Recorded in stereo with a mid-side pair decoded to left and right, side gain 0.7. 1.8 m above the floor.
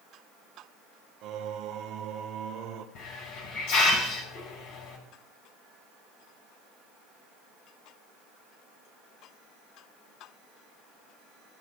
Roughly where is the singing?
Ahead right.